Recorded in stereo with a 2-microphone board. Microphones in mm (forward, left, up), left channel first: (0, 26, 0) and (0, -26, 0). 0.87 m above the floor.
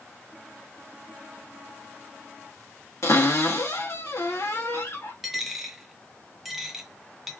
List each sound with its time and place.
3.0 s a cupboard door: 60° left (ahead or behind), 1.2 m
5.2 s a dropped coin: 5° right (ahead or behind), 0.7 m